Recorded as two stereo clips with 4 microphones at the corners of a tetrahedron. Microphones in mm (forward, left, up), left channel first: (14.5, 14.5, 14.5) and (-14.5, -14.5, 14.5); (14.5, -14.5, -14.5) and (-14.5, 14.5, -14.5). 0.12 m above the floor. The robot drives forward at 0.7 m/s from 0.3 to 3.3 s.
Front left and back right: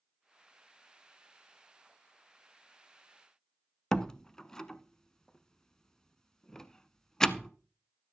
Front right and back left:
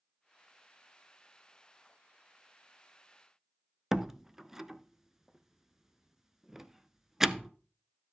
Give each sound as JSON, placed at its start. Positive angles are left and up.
{"t": 3.9, "sound": "a door slam", "azimuth_deg": 80, "distance_m": 0.7}